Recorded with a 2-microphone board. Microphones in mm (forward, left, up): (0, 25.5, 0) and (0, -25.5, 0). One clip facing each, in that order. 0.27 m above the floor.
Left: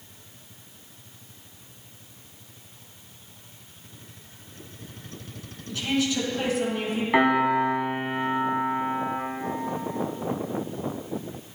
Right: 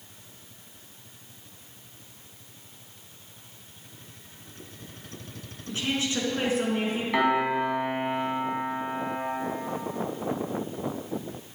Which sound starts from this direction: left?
A piano, at 7.1 s.